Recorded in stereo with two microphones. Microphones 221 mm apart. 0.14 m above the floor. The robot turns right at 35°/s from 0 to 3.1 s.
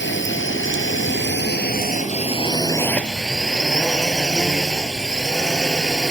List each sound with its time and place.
0.0 s a drone: 70° left; by 6.1 s 175° left